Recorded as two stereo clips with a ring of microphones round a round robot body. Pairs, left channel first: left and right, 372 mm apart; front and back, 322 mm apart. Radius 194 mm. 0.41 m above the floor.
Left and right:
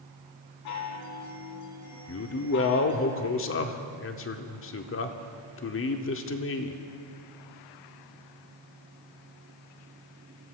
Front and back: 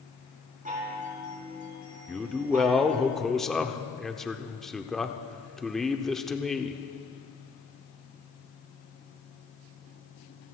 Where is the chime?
115° left, 5 m.